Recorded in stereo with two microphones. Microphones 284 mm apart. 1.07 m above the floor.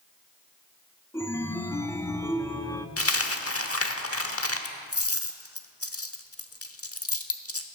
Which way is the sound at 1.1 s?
10° left (ahead or behind).